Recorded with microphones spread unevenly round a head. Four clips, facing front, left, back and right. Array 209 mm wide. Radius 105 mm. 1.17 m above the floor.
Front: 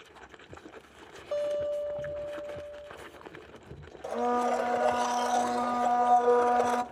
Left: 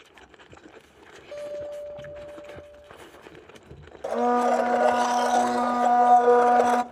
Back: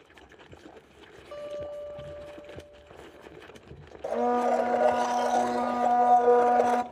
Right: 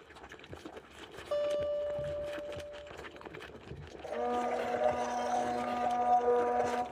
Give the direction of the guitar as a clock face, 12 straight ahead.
2 o'clock.